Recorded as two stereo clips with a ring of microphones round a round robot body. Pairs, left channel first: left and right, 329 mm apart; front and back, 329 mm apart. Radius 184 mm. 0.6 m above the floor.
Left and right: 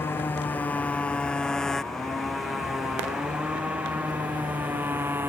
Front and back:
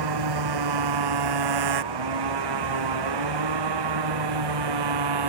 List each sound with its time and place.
0.0 s a motorcycle: 175° left; by 5.3 s 175° right